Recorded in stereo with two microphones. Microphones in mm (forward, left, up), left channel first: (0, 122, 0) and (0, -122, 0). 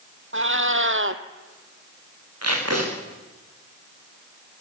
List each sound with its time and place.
0.3 s a cat meowing: 50° right (ahead or behind), 1.7 m
2.4 s tape being pulled: 70° right (ahead or behind), 9 m